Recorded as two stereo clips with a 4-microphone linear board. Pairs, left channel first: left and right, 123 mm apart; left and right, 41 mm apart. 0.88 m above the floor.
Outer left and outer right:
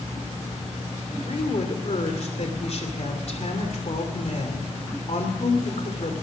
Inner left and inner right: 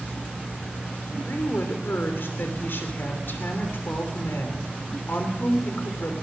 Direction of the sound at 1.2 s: 60° left (ahead or behind).